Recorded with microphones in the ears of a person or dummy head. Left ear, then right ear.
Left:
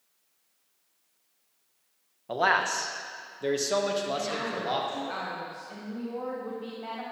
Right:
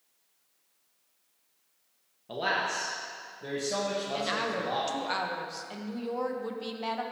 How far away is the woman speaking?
About 0.9 m.